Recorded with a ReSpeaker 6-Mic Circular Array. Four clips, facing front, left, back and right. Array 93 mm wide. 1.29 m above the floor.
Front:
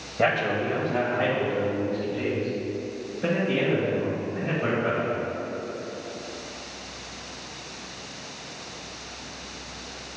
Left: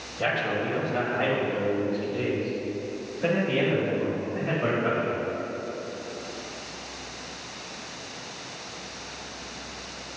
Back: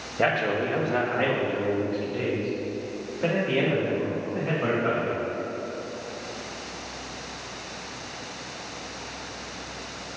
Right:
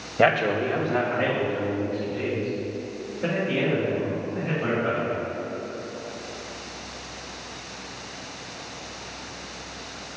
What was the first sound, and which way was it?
A man speaking, 95° right.